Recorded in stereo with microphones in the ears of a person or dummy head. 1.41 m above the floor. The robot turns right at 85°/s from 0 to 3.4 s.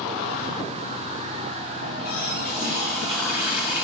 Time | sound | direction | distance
1.8 | a running tap | 65° left | 1.6 m